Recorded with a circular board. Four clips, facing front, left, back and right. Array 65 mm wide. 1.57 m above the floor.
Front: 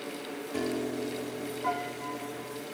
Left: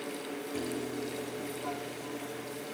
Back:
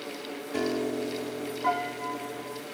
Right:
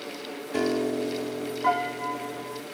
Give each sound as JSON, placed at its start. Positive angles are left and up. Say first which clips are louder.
{"t": 0.5, "sound": "a piano", "louder": "right 12 dB, back 3 dB", "azimuth_deg": -110}